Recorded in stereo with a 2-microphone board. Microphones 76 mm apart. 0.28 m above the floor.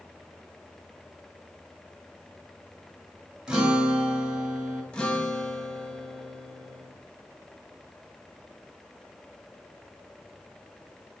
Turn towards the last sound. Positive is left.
turn(degrees=15)  # may be behind; listen again after turning